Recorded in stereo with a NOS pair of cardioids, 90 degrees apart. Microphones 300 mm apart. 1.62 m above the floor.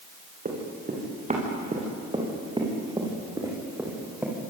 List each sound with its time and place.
0.5 s running footsteps: 30° right, 9.5 m; by 4.3 s 5° right, 9.5 m